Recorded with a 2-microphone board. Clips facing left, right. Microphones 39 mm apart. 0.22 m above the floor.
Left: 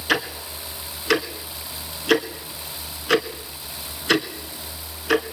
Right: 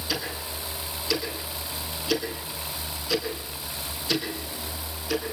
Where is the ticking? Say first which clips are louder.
Left 9 dB; 60° left (ahead or behind), 2 m.